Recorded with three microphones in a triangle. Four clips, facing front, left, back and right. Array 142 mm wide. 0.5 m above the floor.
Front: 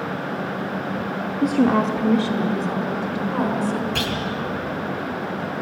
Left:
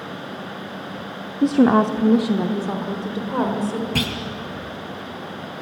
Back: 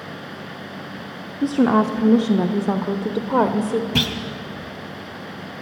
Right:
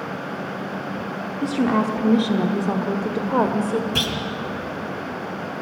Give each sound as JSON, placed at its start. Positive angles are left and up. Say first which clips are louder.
{"t": 1.4, "sound": "a woman speaking", "louder": "left 6 dB, back 1 dB", "azimuth_deg": 90, "distance_m": 1.0}
{"t": 4.0, "sound": "a clunk", "louder": "even, back 1 dB", "azimuth_deg": 155, "distance_m": 1.7}